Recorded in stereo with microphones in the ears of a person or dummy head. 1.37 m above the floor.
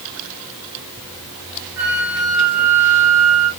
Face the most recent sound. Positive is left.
turn(degrees=-15)  # may be behind; listen again after turning